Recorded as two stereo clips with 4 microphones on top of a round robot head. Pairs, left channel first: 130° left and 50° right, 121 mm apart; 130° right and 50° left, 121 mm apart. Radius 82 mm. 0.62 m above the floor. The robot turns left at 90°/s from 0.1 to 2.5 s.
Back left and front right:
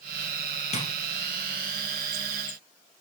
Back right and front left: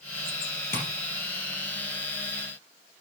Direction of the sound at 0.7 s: 160° left.